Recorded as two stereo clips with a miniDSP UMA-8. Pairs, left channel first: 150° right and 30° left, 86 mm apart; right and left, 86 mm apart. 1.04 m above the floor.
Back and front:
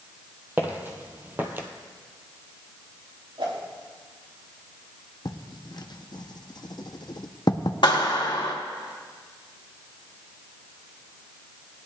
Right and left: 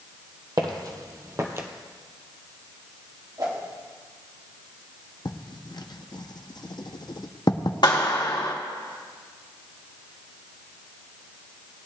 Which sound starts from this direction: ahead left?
A whoosh, at 3.4 s.